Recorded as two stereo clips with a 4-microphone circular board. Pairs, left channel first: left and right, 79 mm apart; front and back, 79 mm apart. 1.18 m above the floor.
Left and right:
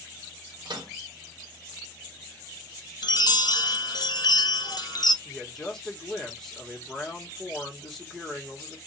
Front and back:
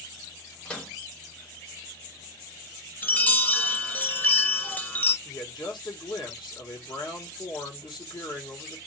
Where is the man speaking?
5° left, 1.6 m.